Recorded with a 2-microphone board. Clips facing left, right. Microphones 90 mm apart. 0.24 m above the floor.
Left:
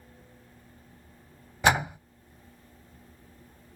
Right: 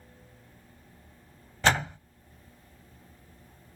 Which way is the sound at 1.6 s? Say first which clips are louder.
Left 2 dB; 15° left (ahead or behind).